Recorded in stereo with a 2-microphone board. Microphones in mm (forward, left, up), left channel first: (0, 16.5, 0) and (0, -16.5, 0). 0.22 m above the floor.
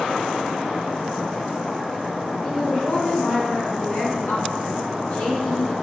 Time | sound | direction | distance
2.4 | a woman speaking | 45° left (ahead or behind) | 1.6 m